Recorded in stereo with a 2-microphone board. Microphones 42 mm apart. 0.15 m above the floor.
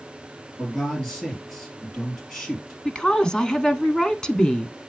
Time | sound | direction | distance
0.6 | a man speaking | 5° left (ahead or behind) | 3.5 m
2.9 | a woman speaking | 15° left (ahead or behind) | 1.1 m